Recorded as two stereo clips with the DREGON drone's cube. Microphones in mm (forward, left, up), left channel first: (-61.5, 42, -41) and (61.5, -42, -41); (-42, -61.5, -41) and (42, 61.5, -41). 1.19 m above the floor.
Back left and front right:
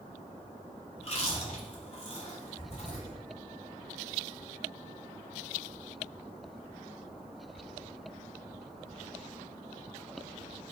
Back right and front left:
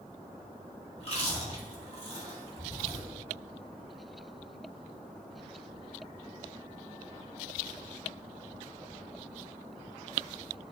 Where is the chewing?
170° right, 2 m.